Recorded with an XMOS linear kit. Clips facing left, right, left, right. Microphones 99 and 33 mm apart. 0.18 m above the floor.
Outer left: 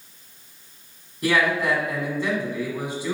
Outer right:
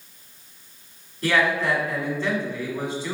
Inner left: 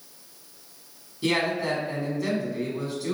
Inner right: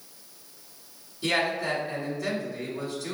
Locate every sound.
1.2 s a man speaking: 15° left (ahead or behind), 1.4 m